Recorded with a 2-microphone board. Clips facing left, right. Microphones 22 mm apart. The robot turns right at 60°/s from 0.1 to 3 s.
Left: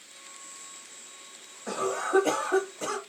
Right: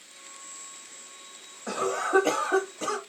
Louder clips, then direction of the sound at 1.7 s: Right 1 dB; 110° right.